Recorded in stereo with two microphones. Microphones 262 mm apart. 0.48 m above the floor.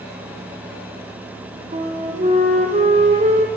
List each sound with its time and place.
1.7 s a flute: 25° right (ahead or behind), 2.5 m